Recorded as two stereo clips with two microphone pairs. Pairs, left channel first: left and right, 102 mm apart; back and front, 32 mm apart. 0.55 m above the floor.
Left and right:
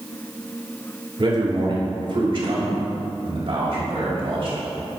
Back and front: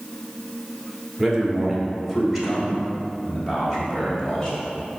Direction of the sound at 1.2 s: 90° right.